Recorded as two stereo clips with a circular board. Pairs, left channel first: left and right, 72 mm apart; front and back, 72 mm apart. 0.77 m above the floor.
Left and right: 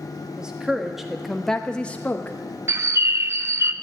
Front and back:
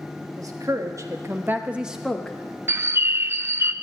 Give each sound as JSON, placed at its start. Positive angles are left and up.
{"t": 0.4, "sound": "a woman speaking", "azimuth_deg": -170, "distance_m": 1.8}
{"t": 2.7, "sound": "a bird", "azimuth_deg": -130, "distance_m": 0.6}